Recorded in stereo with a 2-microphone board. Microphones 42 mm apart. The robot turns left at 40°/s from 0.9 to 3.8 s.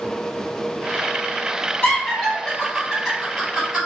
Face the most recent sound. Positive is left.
turn(degrees=-35)  # may be behind; listen again after turning